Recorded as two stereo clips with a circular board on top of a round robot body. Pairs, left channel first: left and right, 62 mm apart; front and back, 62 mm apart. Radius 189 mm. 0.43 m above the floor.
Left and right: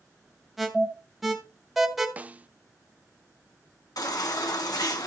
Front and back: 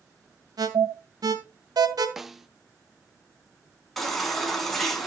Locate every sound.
0.6 s an alarm: straight behind, 2.5 m
2.2 s a snare drum: 100° right, 1.0 m
4.0 s a baby crying: 90° left, 3 m